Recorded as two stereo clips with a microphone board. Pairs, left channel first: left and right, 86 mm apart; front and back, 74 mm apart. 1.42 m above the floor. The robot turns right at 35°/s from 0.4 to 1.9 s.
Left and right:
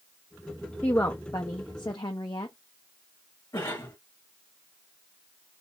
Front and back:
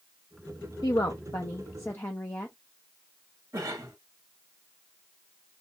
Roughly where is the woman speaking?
Ahead.